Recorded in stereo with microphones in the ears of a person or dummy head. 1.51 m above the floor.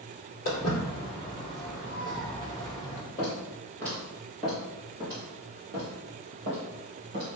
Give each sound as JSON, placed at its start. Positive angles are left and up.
{"t": 0.5, "sound": "footsteps", "side_deg": 30, "distance_m": 1.7}
{"t": 3.2, "sound": "footsteps", "side_deg": 20, "distance_m": 1.9}